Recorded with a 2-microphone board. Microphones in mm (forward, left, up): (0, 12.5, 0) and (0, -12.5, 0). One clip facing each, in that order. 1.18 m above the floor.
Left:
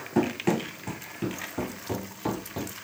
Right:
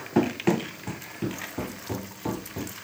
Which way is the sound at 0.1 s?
20° right (ahead or behind).